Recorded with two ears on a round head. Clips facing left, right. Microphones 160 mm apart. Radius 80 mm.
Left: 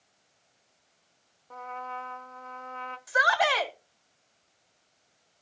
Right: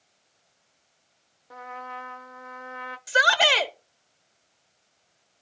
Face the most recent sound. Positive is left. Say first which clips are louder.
# right 2 dB
turn(degrees=-40)  # may be behind; listen again after turning